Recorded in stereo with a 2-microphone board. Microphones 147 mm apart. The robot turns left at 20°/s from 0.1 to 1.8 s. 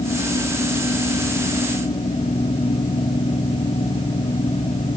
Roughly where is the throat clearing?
I don't hear throat clearing.